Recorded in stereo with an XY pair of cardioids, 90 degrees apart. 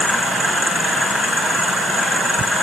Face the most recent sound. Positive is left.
No sound to turn to.